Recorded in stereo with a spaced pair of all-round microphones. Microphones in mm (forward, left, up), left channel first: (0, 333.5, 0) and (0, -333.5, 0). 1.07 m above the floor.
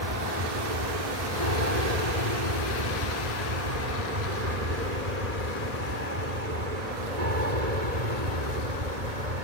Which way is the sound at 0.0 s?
70° right (ahead or behind).